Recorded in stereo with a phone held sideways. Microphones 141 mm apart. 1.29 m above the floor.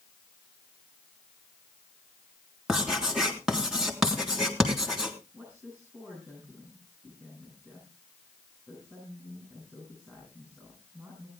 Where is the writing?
5° right (ahead or behind), 3.5 m.